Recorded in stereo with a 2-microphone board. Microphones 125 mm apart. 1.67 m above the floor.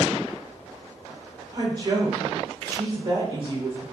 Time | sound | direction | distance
1.5 | a woman speaking | 40° right (ahead or behind) | 2 m